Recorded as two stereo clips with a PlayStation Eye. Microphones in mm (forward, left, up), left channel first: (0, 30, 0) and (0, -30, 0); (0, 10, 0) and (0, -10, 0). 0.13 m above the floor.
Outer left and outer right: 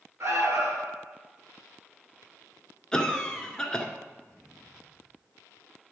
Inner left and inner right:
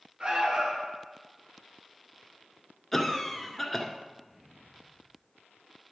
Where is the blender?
No blender in this recording.